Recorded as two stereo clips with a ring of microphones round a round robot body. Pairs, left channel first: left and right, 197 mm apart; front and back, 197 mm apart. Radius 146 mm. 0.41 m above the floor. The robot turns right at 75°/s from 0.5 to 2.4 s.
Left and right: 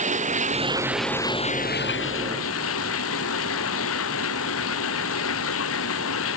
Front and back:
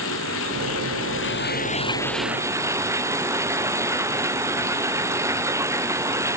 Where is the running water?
40° right; by 6.4 s 105° left.